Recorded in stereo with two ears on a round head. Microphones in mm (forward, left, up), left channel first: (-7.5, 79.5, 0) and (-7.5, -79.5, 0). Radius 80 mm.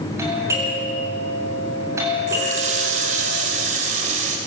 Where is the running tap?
40° right (ahead or behind), 3 m.